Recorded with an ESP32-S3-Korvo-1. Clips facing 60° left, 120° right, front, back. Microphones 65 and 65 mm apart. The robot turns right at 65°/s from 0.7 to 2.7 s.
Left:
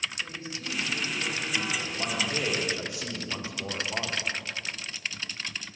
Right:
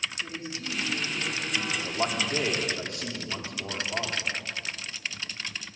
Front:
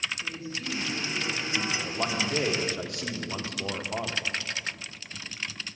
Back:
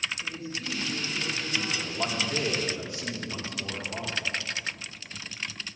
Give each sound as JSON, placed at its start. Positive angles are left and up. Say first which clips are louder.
{"t": 0.2, "sound": "a woman speaking", "louder": "right 1 dB, even", "azimuth_deg": -85, "distance_m": 4.0}
{"t": 1.7, "sound": "a man speaking", "louder": "right 2 dB, front 1 dB", "azimuth_deg": -85, "distance_m": 1.3}